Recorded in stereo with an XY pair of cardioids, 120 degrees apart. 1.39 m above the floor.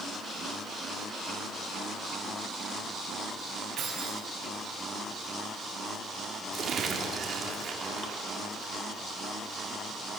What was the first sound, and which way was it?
Keys jangling, 50° right.